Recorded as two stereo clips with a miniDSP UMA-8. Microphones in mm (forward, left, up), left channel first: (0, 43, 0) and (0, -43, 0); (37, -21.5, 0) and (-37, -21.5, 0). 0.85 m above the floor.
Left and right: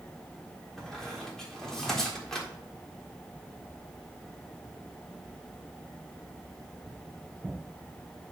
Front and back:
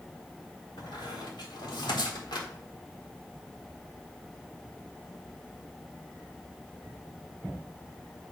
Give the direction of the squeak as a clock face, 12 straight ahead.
12 o'clock.